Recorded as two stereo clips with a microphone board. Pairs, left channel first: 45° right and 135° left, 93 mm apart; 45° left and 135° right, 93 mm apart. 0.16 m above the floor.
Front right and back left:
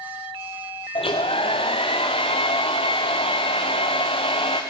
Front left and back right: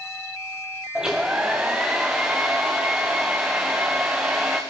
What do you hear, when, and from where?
0.9 s a hair dryer: 50° right, 2.5 m